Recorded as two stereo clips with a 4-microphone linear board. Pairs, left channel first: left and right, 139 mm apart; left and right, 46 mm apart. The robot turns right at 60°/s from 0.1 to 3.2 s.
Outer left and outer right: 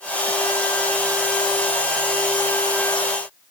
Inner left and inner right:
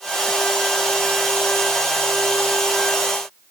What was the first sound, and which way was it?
Only background noise.